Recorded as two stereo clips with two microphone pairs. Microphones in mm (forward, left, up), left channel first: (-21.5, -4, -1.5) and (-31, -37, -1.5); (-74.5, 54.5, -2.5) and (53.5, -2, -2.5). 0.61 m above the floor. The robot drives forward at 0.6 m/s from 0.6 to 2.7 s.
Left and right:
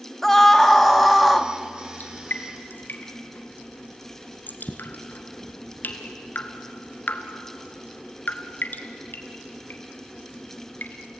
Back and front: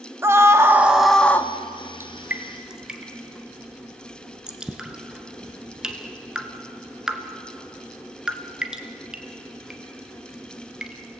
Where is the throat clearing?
No throat clearing in this recording.